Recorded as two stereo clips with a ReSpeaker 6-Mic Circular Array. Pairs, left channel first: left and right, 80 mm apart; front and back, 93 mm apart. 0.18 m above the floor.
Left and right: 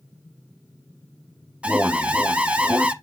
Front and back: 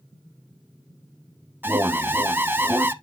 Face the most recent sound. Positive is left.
turn(degrees=-145)